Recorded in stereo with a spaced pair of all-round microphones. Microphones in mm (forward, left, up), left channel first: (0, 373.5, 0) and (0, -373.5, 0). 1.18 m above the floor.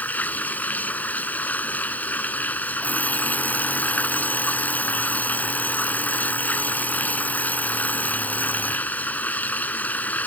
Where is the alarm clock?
Centre (ahead or behind).